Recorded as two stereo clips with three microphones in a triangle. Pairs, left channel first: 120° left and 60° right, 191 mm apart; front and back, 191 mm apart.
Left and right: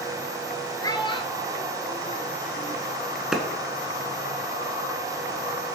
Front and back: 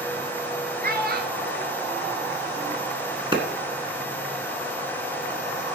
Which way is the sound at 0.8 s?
175° right.